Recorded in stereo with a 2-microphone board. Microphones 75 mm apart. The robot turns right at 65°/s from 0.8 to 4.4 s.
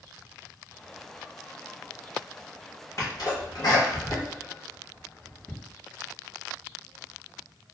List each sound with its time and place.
3.0 s a sneeze: 40° left (ahead or behind), 1.4 m; by 5.5 s 35° left (ahead or behind), 1.4 m